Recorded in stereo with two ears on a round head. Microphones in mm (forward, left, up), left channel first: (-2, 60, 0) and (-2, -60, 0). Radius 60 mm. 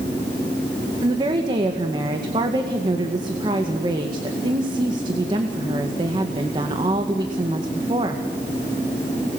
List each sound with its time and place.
1.0 s a woman speaking: 35° right (ahead or behind), 1.9 m